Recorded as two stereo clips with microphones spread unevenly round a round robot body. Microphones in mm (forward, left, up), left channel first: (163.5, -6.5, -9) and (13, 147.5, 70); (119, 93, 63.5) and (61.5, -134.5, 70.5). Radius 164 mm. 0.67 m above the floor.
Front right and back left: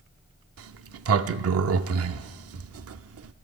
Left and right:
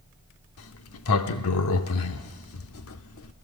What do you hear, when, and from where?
0.6 s a sliding door: 115° left, 0.7 m